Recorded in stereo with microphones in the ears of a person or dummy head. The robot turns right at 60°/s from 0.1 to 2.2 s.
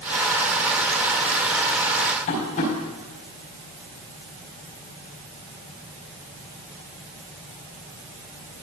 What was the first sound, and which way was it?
Tapping, 50° left (ahead or behind).